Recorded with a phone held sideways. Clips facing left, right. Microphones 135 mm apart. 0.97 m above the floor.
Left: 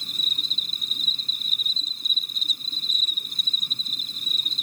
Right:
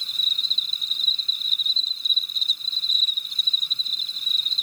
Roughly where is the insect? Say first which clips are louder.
Left 2 dB; left.